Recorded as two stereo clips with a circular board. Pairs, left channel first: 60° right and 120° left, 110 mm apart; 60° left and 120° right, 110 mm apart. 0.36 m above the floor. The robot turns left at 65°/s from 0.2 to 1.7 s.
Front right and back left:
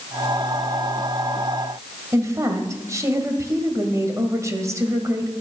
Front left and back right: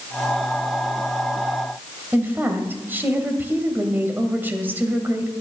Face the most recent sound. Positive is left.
turn(degrees=175)